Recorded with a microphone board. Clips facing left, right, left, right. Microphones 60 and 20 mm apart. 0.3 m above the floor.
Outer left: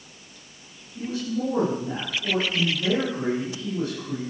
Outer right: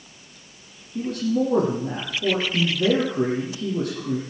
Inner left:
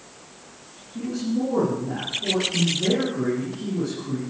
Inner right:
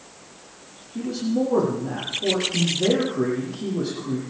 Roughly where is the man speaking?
Right.